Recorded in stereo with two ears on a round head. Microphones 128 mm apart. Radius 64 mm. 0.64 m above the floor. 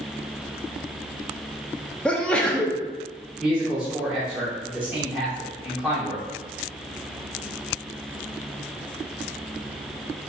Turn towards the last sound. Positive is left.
turn(degrees=-10)  # may be behind; listen again after turning